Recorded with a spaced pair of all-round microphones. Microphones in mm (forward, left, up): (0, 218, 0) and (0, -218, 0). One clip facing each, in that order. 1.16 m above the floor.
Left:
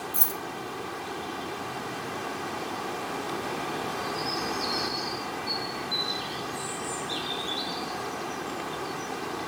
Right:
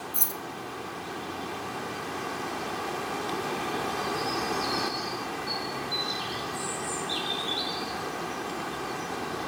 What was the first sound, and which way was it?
Keys jangling, 40° left (ahead or behind).